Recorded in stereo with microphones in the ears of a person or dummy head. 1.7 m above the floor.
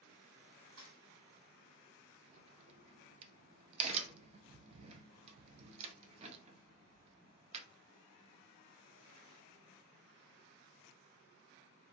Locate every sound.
0.8 s a thud: 60° right (ahead or behind), 1.9 m
2.3 s a crack: 35° right (ahead or behind), 0.5 m